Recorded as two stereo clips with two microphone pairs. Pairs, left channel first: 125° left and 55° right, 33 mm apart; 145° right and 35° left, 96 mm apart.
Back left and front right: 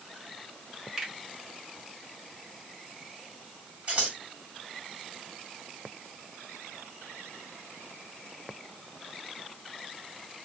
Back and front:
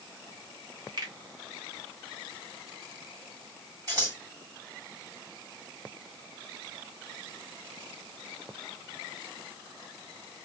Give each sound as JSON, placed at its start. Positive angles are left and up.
{"t": 1.0, "sound": "a finger snap", "azimuth_deg": 10, "distance_m": 1.4}
{"t": 3.9, "sound": "scissors", "azimuth_deg": -10, "distance_m": 2.5}